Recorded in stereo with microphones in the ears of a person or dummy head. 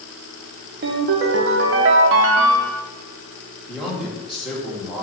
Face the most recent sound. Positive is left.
turn(degrees=-5)  # may be behind; listen again after turning